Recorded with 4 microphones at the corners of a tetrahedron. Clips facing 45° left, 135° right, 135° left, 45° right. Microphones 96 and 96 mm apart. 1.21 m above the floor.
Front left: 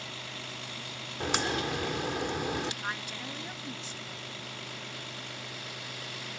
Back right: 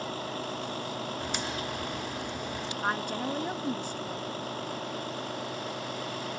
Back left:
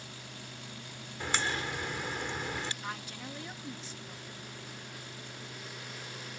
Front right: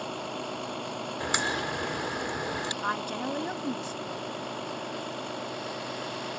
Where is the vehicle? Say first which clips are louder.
Back right 9 dB, front right 14 dB; 80° right.